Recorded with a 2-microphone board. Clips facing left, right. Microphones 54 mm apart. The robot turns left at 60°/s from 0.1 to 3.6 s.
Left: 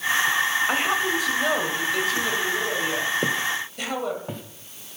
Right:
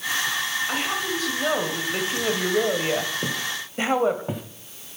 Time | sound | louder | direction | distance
0.7 | a woman speaking | left 4 dB | 45° left | 1.5 m
3.2 | footsteps | left 4 dB | 30° left (ahead or behind) | 1.2 m